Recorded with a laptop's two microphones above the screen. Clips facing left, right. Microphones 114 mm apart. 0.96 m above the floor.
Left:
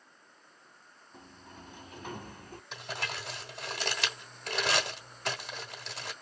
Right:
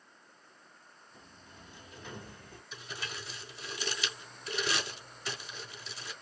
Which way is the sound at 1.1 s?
55° left (ahead or behind).